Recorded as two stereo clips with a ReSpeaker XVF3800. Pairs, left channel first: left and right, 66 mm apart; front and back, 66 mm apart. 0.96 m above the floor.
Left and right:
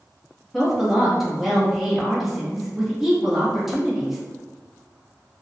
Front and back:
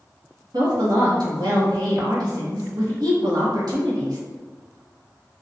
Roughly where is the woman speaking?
Behind.